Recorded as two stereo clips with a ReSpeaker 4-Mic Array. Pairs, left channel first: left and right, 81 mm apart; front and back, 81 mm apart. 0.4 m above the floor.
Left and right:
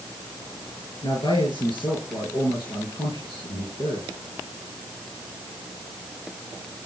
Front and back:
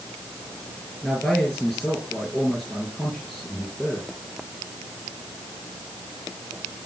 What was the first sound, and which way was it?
A man speaking, 90° left.